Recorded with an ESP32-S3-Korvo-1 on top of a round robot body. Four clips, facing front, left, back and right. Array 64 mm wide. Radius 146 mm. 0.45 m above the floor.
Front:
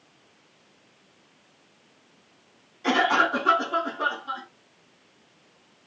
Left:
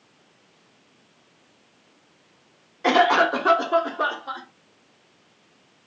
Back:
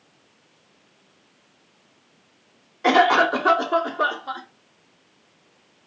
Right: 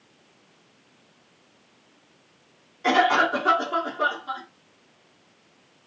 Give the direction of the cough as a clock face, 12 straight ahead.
7 o'clock.